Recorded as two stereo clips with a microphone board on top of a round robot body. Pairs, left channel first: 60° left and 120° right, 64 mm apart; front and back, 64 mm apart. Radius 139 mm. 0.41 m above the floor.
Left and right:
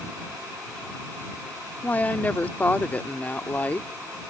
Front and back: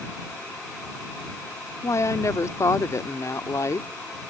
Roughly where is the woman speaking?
Ahead.